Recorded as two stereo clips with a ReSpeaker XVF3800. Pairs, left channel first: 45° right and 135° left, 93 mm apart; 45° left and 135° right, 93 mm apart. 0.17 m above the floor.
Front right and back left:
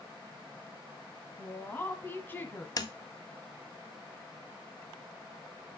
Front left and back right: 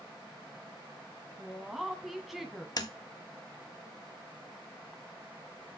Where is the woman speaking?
50° right, 1.2 m.